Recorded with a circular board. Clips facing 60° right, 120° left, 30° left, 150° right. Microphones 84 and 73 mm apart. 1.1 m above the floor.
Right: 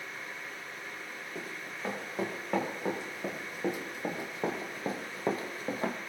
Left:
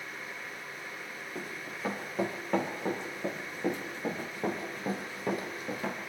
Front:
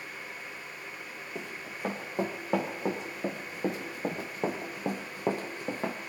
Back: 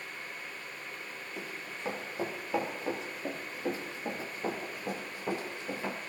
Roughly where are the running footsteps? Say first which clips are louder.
Left 1 dB, front 2 dB; ahead left.